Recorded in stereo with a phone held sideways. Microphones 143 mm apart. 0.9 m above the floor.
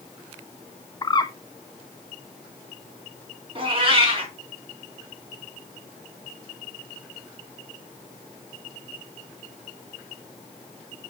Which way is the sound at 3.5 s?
35° right (ahead or behind).